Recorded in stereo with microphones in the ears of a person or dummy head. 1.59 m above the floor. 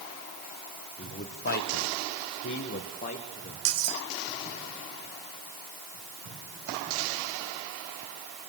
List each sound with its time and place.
1.0 s a man speaking: 30° left (ahead or behind), 1.8 m; by 3.5 s 35° left (ahead or behind), 3 m
3.6 s cutlery clinking: 75° right (ahead or behind), 3 m